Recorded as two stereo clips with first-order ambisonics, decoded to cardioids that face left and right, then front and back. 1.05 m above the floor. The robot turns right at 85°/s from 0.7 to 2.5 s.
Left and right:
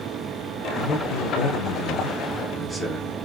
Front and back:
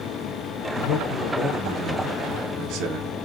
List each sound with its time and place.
0.8 s a man speaking: 25° left, 1.0 m; by 3.1 s 175° left, 1.0 m